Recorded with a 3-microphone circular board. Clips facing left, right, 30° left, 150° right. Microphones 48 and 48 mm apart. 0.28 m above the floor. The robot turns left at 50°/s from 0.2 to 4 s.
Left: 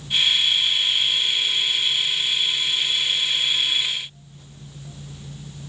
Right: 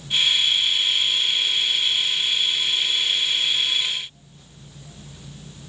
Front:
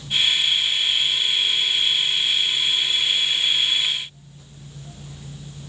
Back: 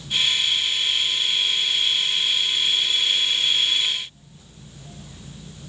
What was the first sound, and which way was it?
Only background noise.